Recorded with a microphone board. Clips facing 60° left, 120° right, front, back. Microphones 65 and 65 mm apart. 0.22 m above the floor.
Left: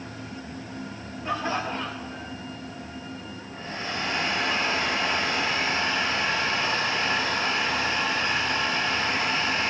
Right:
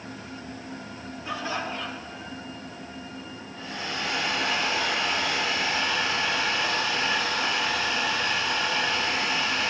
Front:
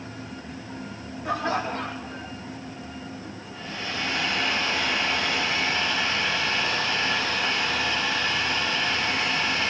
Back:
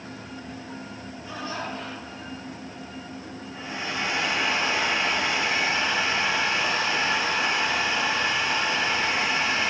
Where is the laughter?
10° left, 10 m; by 2.3 s 15° left, 8.5 m.